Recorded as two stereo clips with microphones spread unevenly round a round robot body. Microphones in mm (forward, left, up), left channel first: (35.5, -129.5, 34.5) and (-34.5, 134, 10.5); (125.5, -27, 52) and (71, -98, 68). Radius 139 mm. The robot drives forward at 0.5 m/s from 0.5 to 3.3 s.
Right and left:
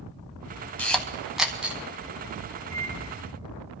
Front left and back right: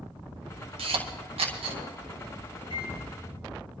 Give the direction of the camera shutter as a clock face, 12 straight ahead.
5 o'clock.